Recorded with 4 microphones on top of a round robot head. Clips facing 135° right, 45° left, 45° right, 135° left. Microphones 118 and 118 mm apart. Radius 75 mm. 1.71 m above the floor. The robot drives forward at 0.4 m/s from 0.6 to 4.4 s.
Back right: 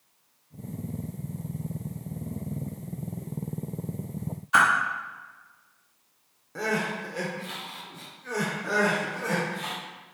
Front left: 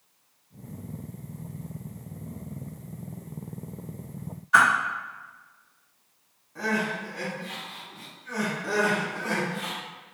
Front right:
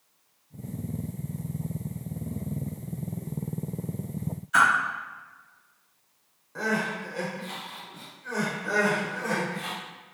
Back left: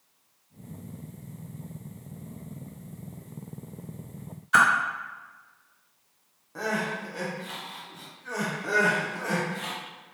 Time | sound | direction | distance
4.5 | a whoosh | 155° left | 1.0 m
6.5 | crying | 145° right | 1.1 m
8.6 | crying | 130° left | 1.3 m